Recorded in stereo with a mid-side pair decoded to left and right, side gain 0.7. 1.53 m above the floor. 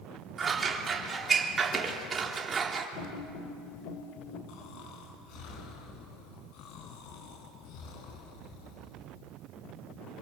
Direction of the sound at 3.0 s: 65° left.